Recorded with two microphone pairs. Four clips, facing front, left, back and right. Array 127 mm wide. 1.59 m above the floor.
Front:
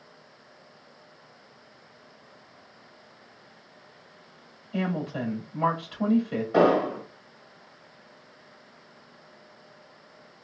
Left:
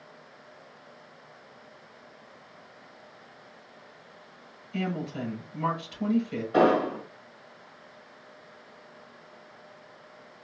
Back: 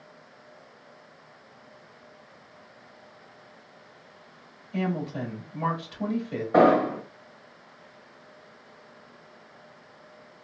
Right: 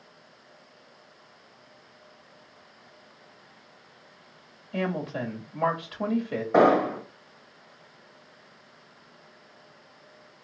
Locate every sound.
4.7 s a woman speaking: 75° right, 2.5 m
6.5 s an explosion: 120° right, 1.8 m